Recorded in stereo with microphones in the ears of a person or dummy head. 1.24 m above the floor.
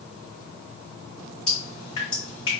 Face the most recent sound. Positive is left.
turn(degrees=15)  # may be behind; listen again after turning